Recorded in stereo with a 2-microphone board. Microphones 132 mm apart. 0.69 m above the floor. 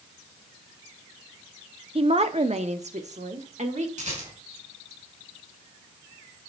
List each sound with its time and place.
1.9 s a woman speaking: 50° right (ahead or behind), 0.7 m; by 3.9 s 70° right (ahead or behind), 1.7 m
4.0 s a rattle: 75° right (ahead or behind), 5.5 m